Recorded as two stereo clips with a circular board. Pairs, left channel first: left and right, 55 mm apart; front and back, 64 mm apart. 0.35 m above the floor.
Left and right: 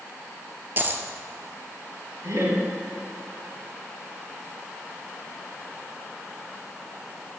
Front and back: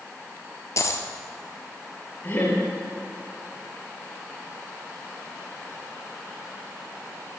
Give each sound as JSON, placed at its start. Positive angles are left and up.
{"t": 0.8, "sound": "a dropped coin", "azimuth_deg": -35, "distance_m": 0.9}
{"t": 2.2, "sound": "laughter", "azimuth_deg": -50, "distance_m": 4.5}